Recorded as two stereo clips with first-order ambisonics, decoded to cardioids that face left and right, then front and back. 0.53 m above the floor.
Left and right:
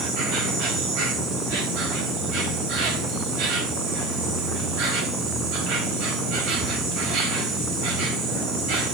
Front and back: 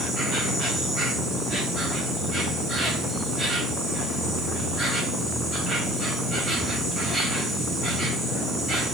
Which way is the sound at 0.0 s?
115° right.